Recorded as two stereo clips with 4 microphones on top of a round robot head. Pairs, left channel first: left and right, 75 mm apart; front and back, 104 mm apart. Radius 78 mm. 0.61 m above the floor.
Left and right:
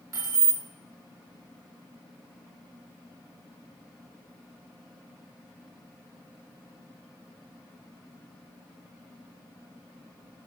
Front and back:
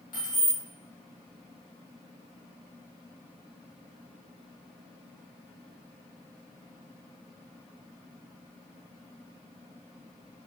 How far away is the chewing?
I don't hear chewing.